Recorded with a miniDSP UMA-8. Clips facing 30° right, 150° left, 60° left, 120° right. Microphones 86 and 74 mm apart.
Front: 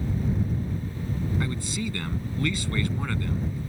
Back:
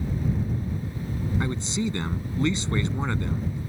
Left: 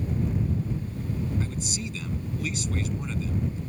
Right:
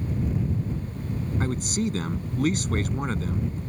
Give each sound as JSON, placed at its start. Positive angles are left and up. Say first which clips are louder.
{"t": 1.4, "sound": "a man speaking", "louder": "back 3 dB, right 6 dB", "azimuth_deg": -145}